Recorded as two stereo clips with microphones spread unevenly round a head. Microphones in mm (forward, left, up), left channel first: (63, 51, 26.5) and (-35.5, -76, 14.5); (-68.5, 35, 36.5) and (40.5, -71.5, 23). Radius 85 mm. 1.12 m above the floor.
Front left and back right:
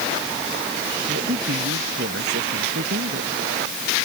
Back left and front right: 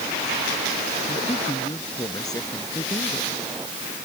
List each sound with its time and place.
1.1 s a woman speaking: 160° right